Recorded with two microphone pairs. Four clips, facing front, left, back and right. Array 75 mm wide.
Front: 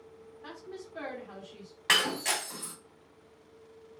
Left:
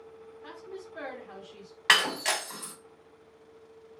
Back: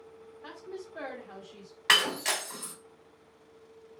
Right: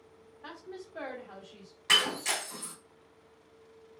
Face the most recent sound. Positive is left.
turn(degrees=100)